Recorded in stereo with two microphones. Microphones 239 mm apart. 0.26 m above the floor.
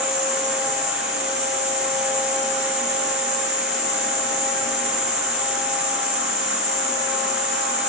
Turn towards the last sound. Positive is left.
turn(degrees=50)  # may be behind; listen again after turning